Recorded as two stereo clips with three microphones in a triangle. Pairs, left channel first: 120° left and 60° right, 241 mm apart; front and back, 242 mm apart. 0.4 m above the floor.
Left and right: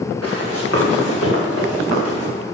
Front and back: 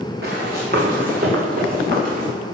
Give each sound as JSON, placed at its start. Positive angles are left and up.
{"t": 0.2, "sound": "running footsteps", "azimuth_deg": 135, "distance_m": 2.5}